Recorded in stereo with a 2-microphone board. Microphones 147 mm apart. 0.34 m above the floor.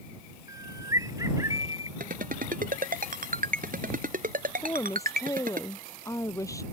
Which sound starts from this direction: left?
A woman speaking, at 4.6 s.